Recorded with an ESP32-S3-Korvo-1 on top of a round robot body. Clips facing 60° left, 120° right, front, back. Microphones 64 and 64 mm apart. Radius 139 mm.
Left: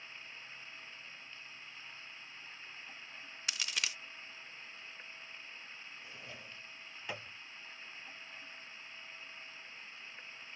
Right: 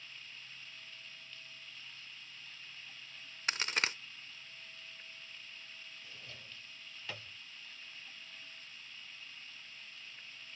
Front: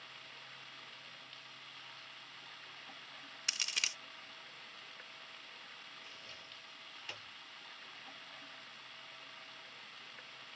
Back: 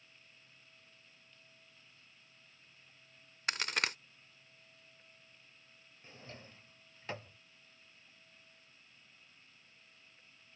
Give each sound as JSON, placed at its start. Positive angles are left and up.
{"t": 0.0, "sound": "running water", "azimuth_deg": -5}
{"t": 3.5, "sound": "a crack", "azimuth_deg": -155}
{"t": 6.0, "sound": "a drawer", "azimuth_deg": 130}